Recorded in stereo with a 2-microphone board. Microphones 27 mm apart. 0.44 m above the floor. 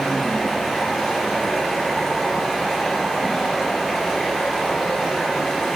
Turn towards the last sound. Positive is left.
turn(degrees=5)  # may be behind; listen again after turning